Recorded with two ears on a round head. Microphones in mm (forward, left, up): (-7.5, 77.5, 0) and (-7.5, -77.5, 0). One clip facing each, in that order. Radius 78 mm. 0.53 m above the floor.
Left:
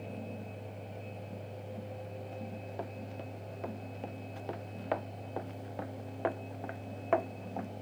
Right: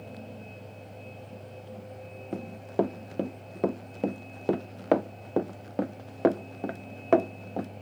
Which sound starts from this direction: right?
Running footsteps, at 2.3 s.